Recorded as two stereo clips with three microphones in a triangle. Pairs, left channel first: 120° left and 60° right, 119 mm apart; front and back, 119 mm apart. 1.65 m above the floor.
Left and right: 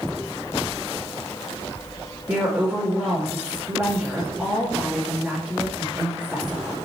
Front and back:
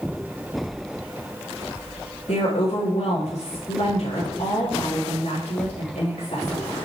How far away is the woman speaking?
About 3 m.